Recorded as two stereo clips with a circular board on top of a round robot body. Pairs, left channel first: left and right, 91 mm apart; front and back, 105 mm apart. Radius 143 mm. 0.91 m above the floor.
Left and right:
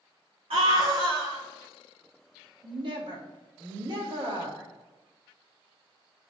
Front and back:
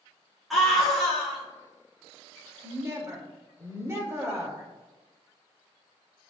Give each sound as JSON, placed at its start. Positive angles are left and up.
{"t": 0.5, "sound": "a scream", "azimuth_deg": -90, "distance_m": 2.5}
{"t": 2.6, "sound": "a woman speaking", "azimuth_deg": -115, "distance_m": 2.5}